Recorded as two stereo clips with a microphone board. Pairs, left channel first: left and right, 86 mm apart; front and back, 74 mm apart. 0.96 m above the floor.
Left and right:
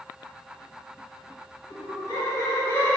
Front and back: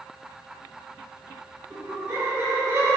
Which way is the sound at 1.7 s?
110° left.